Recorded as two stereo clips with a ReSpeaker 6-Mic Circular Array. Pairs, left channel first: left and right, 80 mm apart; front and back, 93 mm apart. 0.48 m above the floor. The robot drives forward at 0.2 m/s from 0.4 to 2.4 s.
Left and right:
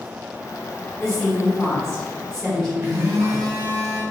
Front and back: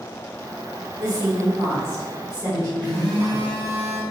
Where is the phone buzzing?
140° right, 1.5 m.